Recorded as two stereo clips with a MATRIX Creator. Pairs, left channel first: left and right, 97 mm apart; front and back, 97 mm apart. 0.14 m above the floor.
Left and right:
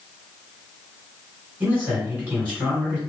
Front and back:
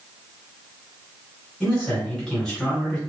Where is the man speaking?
65° right, 1.8 m.